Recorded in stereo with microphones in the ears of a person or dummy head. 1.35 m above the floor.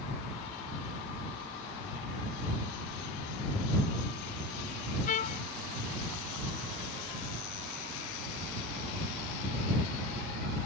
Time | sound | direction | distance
5.1 | a trumpet | 40° left (ahead or behind) | ?